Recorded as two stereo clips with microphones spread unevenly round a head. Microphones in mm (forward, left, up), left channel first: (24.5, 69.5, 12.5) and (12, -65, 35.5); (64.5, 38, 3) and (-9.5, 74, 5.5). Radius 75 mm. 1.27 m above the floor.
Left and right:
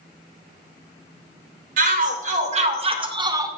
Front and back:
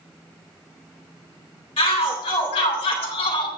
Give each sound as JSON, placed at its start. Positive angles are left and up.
{"t": 1.8, "sound": "a shout", "azimuth_deg": -70, "distance_m": 3.0}